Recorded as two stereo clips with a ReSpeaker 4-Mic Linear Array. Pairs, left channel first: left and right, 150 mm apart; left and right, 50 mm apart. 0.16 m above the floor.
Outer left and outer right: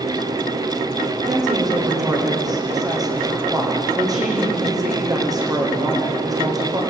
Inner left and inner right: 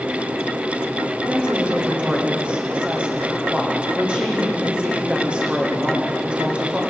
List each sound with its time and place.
1.2 s a woman speaking: 25° right (ahead or behind), 8 m